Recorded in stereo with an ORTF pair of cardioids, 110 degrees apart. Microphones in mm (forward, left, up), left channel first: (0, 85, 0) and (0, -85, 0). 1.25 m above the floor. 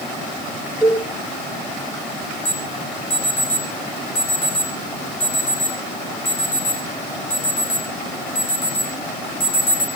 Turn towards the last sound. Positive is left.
turn(degrees=45)